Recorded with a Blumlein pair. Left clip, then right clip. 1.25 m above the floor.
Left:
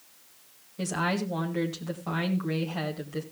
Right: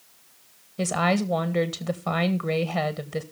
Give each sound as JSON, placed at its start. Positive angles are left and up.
{"t": 0.8, "sound": "a woman speaking", "azimuth_deg": -20, "distance_m": 1.6}